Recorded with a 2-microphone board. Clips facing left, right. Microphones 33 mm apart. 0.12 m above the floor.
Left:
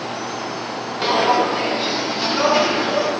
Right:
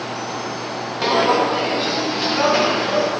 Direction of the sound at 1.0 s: Centre (ahead or behind).